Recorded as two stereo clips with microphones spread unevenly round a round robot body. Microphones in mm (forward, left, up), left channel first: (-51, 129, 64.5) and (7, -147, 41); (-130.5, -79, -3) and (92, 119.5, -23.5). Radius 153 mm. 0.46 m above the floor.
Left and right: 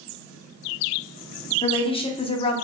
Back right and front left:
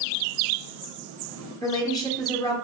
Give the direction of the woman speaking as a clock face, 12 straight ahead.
7 o'clock.